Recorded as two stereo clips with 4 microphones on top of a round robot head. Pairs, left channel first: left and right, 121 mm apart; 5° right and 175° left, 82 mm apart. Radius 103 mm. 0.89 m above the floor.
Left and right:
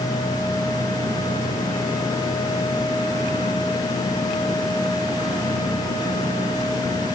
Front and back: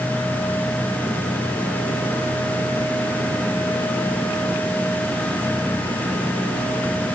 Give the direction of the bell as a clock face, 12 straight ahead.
I don't hear a bell.